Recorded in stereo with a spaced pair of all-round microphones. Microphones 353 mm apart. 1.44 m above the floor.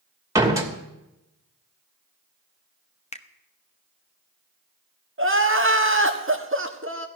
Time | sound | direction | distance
0.3 | a door slam | 10° right (ahead or behind) | 2.5 m
3.1 | a finger snap | 20° left (ahead or behind) | 1.0 m
5.2 | crying | 35° right (ahead or behind) | 1.6 m